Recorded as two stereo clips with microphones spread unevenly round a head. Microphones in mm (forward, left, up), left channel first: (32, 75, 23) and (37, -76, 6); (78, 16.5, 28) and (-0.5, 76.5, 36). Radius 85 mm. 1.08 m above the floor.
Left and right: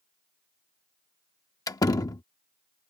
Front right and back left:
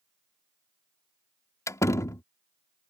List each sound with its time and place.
1.7 s a door slam: 25° left